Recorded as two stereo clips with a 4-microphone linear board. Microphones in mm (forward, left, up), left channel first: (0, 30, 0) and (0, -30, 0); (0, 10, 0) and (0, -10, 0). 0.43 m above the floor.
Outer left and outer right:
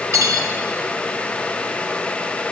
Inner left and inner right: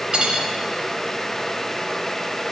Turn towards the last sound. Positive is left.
turn(degrees=-60)  # may be behind; listen again after turning